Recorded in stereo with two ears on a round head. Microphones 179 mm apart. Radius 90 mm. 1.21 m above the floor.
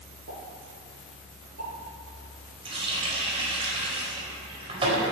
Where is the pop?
65° right (ahead or behind), 6.5 m.